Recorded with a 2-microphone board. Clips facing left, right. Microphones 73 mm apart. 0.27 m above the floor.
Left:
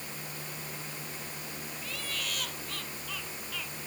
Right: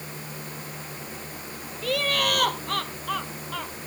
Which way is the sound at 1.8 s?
65° right (ahead or behind).